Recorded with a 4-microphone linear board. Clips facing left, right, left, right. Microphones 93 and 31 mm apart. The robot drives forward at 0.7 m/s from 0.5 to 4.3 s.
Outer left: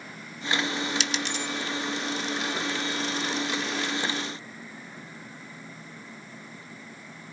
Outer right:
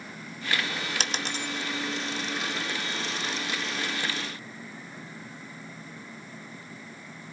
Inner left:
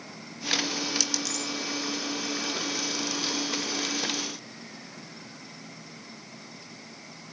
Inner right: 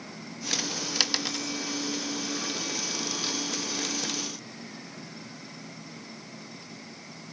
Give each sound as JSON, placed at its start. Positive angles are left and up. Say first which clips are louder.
{"t": 1.0, "sound": "a dropped coin", "louder": "outer left 1 dB, inner right 2 dB", "side_deg": -50, "distance_m": 0.9}